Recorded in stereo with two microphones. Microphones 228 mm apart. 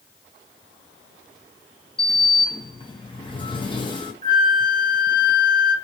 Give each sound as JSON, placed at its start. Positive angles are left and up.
{"t": 2.0, "sound": "a sliding door", "side_deg": 20, "distance_m": 0.6}
{"t": 4.2, "sound": "a flute", "side_deg": -35, "distance_m": 0.7}